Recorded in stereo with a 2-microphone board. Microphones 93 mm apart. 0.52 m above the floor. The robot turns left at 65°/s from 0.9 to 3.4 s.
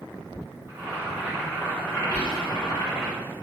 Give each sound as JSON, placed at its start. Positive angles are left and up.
{"t": 0.7, "sound": "boiling", "azimuth_deg": -145, "distance_m": 1.9}
{"t": 2.1, "sound": "whispering", "side_deg": 15, "distance_m": 1.2}